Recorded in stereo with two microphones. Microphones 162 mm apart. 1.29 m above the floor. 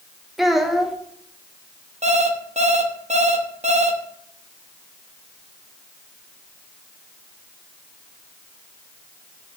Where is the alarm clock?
45° right (ahead or behind), 0.8 m.